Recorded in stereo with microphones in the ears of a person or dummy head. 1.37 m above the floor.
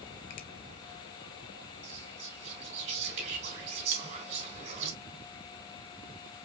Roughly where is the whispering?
Right.